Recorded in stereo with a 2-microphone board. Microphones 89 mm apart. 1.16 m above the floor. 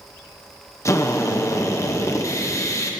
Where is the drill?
35° left (ahead or behind), 0.8 m.